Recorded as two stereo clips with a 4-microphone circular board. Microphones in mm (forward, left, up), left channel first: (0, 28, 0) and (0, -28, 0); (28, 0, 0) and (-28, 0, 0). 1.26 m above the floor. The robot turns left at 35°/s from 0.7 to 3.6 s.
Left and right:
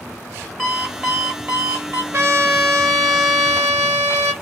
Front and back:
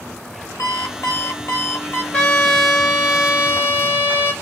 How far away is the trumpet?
About 1.2 m.